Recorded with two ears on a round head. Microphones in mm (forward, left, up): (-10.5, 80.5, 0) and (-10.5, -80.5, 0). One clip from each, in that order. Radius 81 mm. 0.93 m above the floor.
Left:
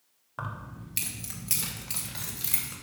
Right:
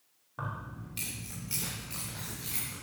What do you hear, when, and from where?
0.4 s keys jangling: 50° left (ahead or behind), 1.7 m; by 2.7 s 85° left, 3.5 m